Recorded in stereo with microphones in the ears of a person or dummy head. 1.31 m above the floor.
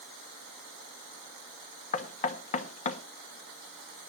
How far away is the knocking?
About 1.1 m.